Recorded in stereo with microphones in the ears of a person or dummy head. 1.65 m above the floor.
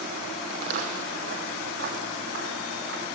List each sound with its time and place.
0.5 s footsteps: 60° right (ahead or behind), 3.5 m; by 3.0 s 65° right (ahead or behind), 7 m